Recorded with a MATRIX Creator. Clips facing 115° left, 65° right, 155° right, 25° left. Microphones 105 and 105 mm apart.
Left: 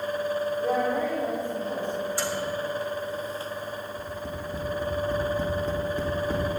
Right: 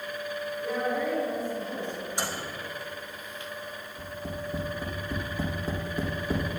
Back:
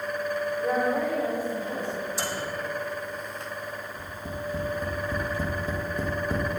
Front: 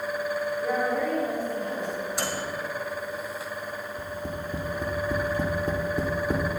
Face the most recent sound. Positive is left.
turn(degrees=15)